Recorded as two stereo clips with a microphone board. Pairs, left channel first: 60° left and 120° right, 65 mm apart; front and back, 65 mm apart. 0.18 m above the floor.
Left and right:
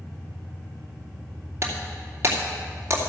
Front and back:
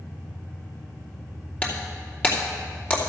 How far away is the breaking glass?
About 2.5 m.